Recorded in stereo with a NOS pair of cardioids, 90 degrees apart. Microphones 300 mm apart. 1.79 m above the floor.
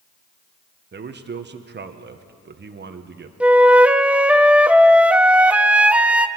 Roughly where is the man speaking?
Ahead right.